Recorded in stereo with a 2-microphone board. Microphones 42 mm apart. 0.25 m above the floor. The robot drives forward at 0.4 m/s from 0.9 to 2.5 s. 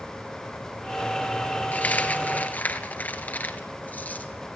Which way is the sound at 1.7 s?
40° left (ahead or behind).